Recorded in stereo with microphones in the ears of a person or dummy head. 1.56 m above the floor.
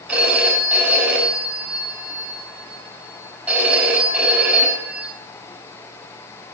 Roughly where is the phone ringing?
Centre.